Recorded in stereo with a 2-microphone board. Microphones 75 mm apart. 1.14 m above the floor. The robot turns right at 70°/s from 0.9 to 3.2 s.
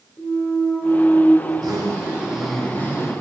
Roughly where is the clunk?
Ahead left.